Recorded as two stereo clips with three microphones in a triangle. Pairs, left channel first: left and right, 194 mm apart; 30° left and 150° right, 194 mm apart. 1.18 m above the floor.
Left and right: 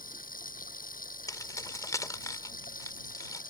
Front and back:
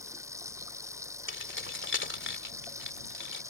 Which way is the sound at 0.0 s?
135° left.